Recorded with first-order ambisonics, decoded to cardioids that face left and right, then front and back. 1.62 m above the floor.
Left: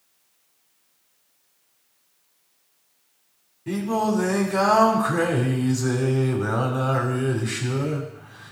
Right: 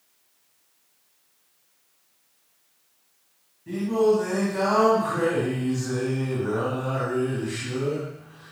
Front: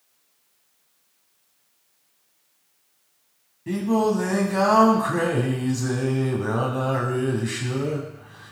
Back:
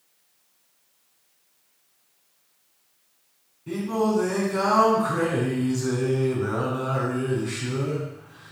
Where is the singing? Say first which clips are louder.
Right 3 dB, front 3 dB; 35° left, 3 m.